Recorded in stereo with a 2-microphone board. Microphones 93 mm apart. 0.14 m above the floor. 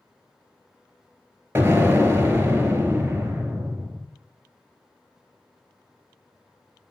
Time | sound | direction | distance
1.6 | an explosion | 25° right (ahead or behind) | 1.1 m